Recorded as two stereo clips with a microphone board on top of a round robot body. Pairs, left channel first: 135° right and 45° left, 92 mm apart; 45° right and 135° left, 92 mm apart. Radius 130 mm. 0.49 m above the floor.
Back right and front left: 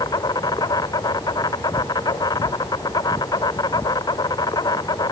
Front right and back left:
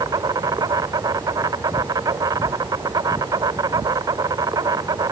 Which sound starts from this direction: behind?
An insect, at 0.0 s.